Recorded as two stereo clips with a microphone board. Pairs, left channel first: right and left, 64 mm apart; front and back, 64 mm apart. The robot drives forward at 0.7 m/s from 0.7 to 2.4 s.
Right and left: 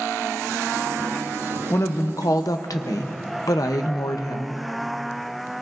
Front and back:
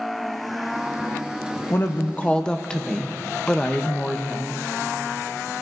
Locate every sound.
1.7 s a woman speaking: 50° right, 1.0 m; by 4.6 s 75° right, 0.8 m